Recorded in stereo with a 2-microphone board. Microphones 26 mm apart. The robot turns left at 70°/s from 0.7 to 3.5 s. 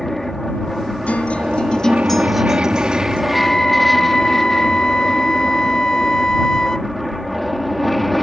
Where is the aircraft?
15° left; by 8.2 s 175° left.